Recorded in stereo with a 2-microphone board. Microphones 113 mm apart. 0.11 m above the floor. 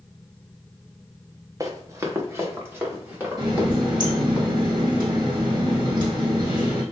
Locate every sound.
1.6 s running footsteps: 30° right (ahead or behind), 1.2 m; by 4.4 s 15° right (ahead or behind), 3.5 m
3.4 s a running tap: 40° right (ahead or behind), 2.5 m